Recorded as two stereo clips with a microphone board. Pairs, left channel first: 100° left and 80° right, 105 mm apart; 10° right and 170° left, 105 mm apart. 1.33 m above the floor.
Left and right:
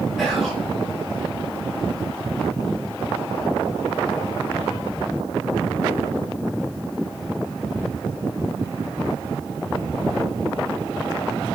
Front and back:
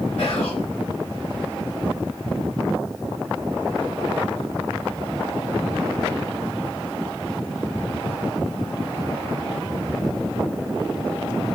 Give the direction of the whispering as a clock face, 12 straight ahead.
12 o'clock.